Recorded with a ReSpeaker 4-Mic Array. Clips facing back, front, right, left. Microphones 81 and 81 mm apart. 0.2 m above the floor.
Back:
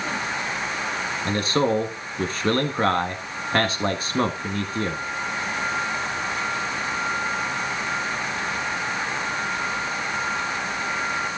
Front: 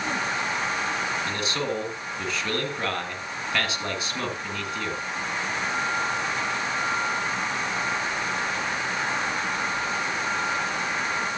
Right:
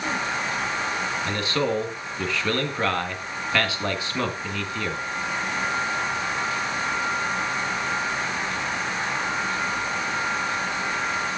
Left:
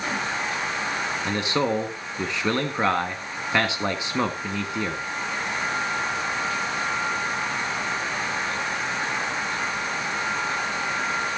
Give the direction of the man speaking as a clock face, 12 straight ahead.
7 o'clock.